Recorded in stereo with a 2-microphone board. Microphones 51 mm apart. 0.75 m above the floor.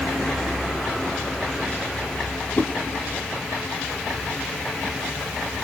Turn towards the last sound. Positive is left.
turn(degrees=40)  # may be behind; listen again after turning